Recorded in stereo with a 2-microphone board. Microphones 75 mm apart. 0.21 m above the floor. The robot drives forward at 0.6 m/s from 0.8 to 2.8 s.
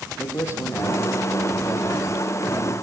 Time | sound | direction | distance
0.2 | a man speaking | 35° left (ahead or behind) | 5.5 m